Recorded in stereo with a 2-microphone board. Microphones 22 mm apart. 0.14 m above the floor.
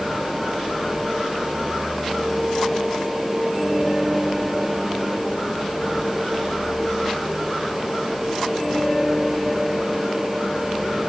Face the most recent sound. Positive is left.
No sound to turn to.